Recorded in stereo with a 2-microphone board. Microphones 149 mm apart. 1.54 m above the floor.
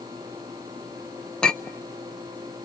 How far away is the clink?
About 0.7 m.